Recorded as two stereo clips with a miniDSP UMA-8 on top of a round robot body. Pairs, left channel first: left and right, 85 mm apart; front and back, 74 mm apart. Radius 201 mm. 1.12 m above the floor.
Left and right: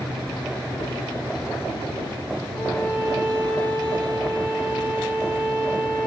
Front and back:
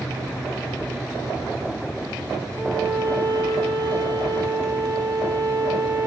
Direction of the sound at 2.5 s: 155° left.